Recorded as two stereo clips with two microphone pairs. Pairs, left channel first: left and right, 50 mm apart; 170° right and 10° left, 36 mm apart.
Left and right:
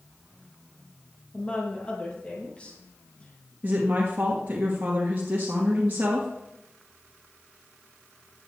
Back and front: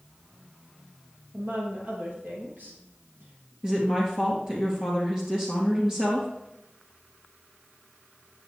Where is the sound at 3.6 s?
45° right, 1.9 m.